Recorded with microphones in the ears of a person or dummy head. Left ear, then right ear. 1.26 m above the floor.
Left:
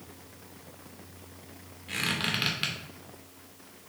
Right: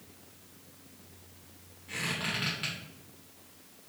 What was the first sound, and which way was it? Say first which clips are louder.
A squeak: left 4 dB; 25° left (ahead or behind).